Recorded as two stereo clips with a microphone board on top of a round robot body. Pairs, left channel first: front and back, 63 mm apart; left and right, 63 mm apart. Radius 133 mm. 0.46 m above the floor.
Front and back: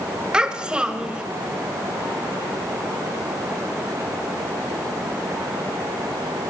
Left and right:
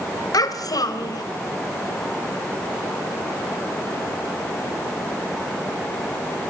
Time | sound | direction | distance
0.3 | a child speaking | 105° left | 1.8 m